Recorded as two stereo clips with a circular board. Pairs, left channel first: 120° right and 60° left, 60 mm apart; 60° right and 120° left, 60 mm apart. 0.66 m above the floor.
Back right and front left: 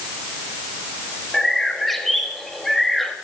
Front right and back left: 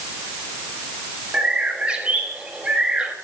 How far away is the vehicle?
No vehicle in this recording.